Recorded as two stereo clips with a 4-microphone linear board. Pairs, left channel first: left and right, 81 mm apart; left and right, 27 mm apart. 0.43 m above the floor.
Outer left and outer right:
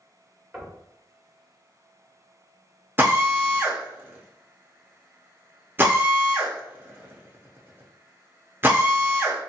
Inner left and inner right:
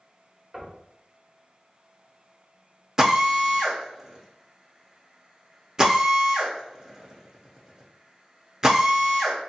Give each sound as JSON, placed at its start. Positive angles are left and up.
{"t": 0.5, "sound": "knocking", "side_deg": -10, "distance_m": 1.0}
{"t": 3.0, "sound": "a drill", "side_deg": -25, "distance_m": 0.6}